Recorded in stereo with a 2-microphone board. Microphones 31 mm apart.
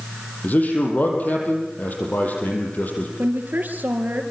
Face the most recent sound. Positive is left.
turn(degrees=-65)  # may be behind; listen again after turning